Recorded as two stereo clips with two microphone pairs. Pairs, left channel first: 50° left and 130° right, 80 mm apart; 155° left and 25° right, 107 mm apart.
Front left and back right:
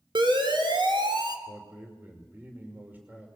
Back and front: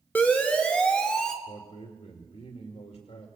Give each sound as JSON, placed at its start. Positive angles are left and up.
{"t": 0.1, "sound": "a siren", "azimuth_deg": -130, "distance_m": 2.5}
{"t": 1.5, "sound": "a man speaking", "azimuth_deg": 165, "distance_m": 2.5}